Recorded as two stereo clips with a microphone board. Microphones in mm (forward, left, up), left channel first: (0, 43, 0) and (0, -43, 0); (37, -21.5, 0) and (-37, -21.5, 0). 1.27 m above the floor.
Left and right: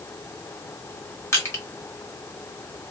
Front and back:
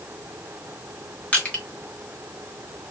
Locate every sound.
1.3 s crushing: 60° left, 1.2 m